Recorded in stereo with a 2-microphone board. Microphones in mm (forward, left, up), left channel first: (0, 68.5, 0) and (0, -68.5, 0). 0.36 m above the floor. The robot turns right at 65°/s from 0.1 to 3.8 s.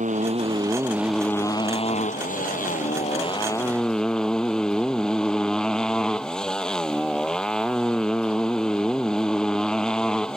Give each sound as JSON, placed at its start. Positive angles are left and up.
{"t": 0.0, "sound": "a motorcycle", "azimuth_deg": -65}